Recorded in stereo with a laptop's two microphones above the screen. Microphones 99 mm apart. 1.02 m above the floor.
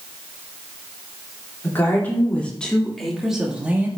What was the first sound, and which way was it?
A woman speaking, 20° left (ahead or behind).